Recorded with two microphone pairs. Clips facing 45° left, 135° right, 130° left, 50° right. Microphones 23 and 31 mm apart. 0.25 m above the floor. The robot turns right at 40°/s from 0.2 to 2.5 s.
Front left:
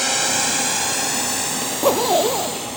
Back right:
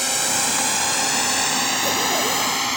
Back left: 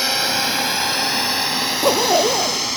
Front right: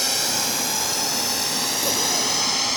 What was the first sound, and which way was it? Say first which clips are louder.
A drone: front left 2 dB, back left 5 dB; 110° left.